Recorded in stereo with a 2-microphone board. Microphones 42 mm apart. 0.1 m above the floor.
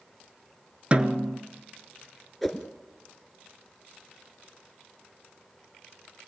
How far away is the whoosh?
About 1.3 m.